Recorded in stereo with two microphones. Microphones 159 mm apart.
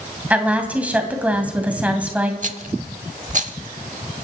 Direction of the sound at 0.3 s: 10° right (ahead or behind).